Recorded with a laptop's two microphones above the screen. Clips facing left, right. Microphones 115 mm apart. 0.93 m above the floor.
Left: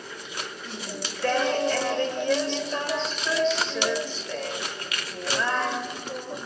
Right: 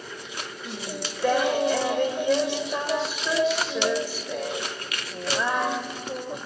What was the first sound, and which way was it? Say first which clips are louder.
Singing: right 2 dB; 10° right (ahead or behind).